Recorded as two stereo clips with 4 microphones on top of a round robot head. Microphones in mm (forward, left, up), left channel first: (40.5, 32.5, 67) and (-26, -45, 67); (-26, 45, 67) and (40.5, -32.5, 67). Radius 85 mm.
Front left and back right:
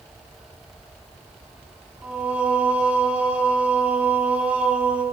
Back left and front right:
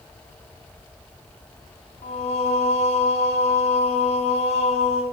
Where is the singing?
150° left, 5 m.